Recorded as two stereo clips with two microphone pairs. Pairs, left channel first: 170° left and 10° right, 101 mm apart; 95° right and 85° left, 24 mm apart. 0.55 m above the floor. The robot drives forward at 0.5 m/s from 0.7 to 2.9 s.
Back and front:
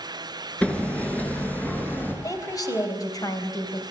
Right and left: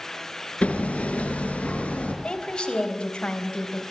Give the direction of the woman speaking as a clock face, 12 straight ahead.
5 o'clock.